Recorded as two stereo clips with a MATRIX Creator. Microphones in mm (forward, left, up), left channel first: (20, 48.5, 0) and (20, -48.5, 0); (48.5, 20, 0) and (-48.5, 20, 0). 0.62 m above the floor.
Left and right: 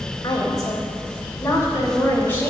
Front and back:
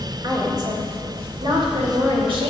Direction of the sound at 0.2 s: 135° left.